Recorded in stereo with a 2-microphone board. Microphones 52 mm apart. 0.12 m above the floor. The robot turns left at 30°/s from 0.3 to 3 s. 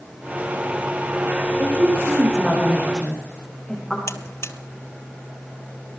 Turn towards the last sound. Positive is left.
turn(degrees=60)  # may be behind; listen again after turning